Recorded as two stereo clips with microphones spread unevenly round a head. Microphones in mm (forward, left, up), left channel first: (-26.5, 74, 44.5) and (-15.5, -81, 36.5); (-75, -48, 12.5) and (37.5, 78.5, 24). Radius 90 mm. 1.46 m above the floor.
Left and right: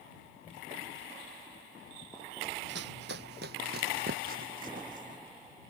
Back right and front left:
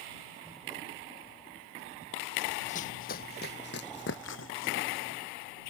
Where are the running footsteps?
85° right; by 5.2 s 125° right.